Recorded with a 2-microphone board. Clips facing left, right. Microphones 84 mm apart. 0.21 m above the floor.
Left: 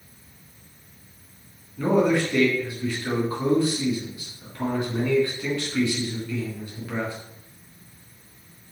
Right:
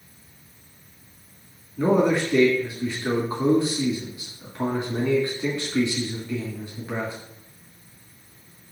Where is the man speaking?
25° right (ahead or behind), 2.5 m.